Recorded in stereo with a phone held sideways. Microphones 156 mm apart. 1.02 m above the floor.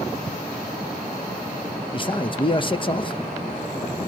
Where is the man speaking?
30° left (ahead or behind), 0.8 m.